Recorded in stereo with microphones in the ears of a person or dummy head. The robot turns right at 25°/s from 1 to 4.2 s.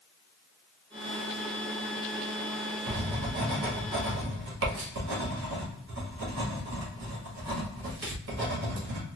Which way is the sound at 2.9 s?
50° right (ahead or behind).